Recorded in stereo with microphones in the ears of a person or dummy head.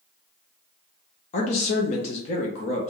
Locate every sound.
1.3 s a man speaking: 40° left (ahead or behind), 0.5 m